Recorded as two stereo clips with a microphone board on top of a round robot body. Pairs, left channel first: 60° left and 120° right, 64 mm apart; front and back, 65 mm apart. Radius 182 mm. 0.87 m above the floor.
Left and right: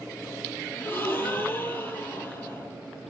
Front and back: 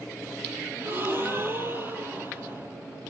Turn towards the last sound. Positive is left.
turn(degrees=120)